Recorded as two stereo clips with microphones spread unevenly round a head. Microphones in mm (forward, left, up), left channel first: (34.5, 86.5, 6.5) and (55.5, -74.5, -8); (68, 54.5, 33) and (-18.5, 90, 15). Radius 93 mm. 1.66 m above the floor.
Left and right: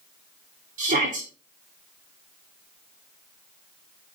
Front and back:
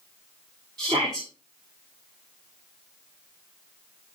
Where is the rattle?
I don't hear a rattle.